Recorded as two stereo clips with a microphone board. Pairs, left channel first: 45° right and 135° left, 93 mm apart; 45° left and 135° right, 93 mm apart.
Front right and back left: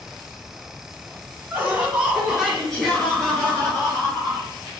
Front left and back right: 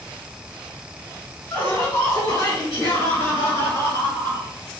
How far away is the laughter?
About 1.5 m.